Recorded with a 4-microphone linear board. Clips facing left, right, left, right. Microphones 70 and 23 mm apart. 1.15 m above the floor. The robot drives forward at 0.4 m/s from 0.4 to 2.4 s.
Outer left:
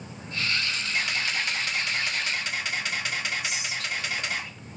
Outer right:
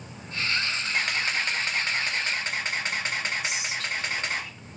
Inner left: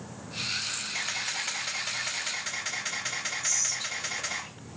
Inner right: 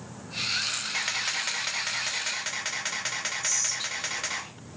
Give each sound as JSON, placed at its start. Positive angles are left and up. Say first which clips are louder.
{"t": 0.9, "sound": "a camera shutter", "louder": "outer right 1 dB, inner right 2 dB", "side_deg": -50, "distance_m": 1.1}
{"t": 3.4, "sound": "whispering", "louder": "outer right 1 dB, even", "side_deg": -35, "distance_m": 3.0}